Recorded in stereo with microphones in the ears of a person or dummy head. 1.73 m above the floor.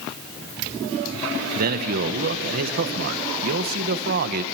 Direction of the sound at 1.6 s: 50° right (ahead or behind).